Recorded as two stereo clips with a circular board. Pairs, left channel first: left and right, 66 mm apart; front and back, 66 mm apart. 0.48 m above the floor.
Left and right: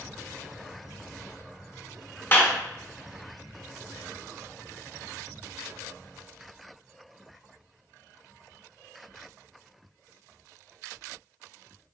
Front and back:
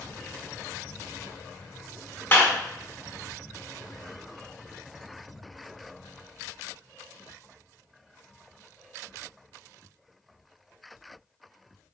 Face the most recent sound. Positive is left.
turn(degrees=45)